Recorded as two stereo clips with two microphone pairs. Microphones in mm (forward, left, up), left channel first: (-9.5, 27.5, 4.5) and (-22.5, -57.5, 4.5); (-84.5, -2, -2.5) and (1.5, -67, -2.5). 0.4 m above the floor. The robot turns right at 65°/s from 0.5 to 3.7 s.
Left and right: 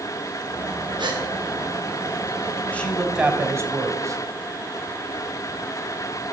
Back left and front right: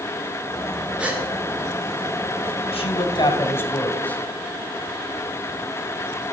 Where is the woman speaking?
155° left, 2.5 m; by 4.2 s 145° right, 2.5 m.